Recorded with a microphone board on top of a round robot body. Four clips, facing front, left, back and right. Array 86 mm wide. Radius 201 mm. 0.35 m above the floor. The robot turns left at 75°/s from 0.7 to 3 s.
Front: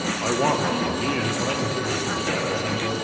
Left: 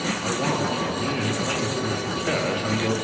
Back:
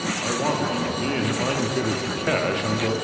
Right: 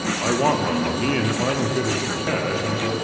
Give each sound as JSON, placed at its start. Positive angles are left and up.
{"t": 0.2, "sound": "a man speaking", "azimuth_deg": -60, "distance_m": 1.0}